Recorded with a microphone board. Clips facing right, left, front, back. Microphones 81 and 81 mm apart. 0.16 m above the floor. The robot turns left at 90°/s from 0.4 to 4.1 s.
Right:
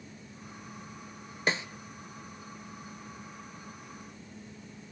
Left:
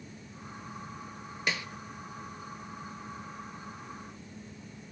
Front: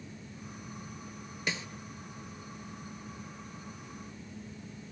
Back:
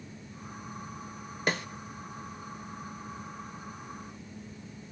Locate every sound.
1.5 s a snare drum: 145° right, 0.6 m; by 1.7 s 160° right, 0.6 m